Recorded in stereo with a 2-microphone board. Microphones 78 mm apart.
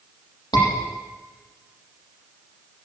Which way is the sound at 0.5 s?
65° left (ahead or behind).